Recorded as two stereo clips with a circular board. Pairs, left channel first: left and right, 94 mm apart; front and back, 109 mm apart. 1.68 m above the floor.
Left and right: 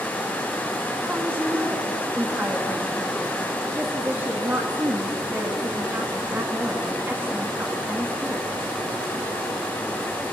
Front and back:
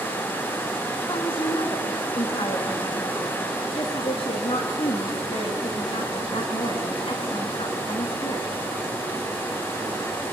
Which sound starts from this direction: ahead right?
A woman speaking, at 1.1 s.